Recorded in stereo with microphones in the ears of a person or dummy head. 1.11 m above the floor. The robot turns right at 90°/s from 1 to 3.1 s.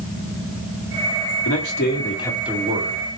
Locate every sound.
1.4 s a man speaking: 95° left, 1.5 m; by 3.2 s 115° right, 1.5 m